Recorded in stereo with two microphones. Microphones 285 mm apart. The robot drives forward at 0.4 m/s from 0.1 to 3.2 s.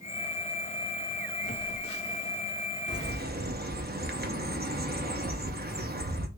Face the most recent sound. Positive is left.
turn(degrees=-35)  # may be behind; listen again after turning